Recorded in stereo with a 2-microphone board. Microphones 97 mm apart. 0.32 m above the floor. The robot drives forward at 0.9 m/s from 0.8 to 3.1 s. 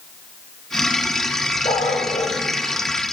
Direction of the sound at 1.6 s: 85° left.